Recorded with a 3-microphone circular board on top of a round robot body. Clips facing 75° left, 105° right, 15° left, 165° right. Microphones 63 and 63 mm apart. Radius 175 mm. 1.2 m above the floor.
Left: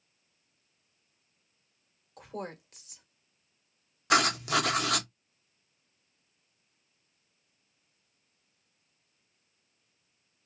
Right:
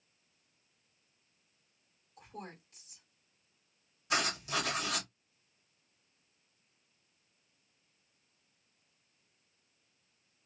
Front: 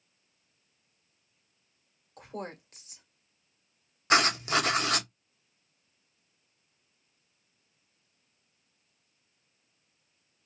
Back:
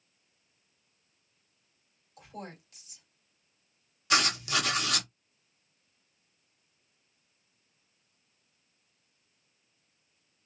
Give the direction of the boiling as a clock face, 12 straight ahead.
I don't hear boiling.